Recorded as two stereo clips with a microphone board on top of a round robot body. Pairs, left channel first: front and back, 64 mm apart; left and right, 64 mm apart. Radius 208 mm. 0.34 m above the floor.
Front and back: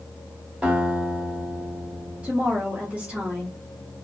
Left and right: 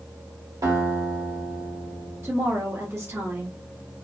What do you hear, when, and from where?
0.6 s a guitar: 110° right, 1.9 m
2.2 s a woman speaking: 120° right, 1.4 m